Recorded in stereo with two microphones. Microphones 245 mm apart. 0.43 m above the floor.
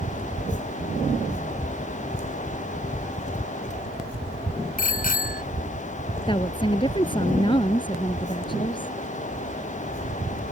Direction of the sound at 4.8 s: 35° left (ahead or behind).